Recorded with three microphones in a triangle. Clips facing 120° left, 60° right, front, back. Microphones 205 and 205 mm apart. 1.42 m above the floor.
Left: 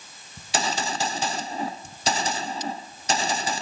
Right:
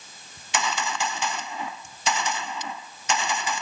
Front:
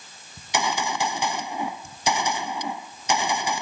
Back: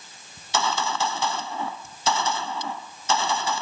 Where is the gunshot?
75° left.